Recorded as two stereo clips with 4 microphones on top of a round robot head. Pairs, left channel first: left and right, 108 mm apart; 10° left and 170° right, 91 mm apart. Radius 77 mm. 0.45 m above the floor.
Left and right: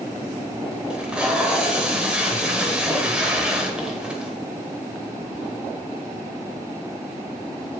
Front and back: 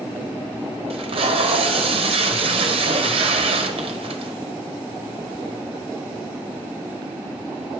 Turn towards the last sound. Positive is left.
turn(degrees=-170)